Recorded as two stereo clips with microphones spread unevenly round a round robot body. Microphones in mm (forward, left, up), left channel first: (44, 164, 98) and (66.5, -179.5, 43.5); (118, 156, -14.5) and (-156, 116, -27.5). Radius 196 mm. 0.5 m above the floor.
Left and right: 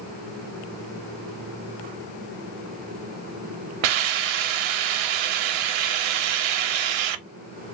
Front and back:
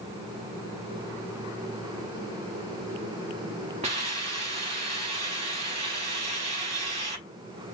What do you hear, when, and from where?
3.8 s a hiss: 95° right, 0.5 m